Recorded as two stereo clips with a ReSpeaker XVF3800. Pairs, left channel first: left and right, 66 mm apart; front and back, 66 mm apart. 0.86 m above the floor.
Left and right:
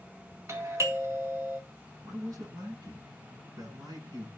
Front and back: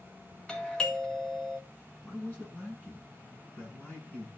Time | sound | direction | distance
0.5 | a doorbell | 75° right | 2 m
2.0 | a man speaking | 70° right | 9.5 m